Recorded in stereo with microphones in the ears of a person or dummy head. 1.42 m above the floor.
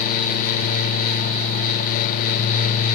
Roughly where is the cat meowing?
I don't hear a cat meowing.